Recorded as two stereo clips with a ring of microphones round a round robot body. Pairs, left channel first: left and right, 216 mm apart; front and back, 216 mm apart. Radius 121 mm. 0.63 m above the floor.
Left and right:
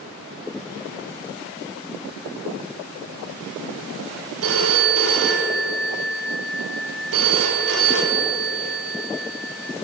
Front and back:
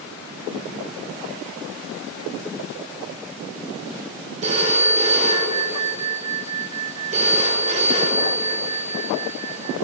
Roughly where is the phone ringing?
Behind right.